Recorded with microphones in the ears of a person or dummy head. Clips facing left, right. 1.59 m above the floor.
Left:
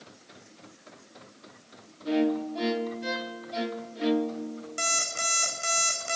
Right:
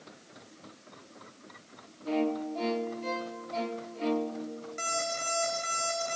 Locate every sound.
2.0 s a violin: 15° left (ahead or behind), 0.6 m
4.8 s an alarm clock: 45° left (ahead or behind), 4 m